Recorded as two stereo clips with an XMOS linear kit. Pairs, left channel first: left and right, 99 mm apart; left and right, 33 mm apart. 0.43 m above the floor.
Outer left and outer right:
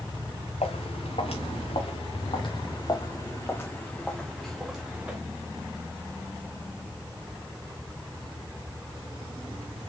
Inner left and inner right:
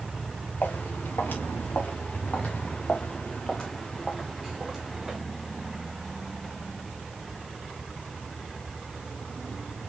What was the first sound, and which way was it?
Footsteps, 80° left.